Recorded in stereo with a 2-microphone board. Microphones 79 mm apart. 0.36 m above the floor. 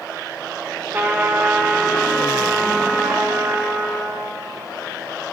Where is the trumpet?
20° right (ahead or behind), 1.6 m.